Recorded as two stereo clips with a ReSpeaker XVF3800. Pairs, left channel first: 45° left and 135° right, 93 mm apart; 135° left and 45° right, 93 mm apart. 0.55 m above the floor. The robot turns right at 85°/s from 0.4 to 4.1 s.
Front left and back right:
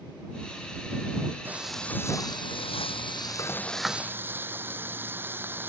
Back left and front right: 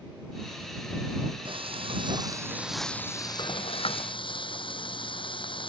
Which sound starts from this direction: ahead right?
Frying, at 1.4 s.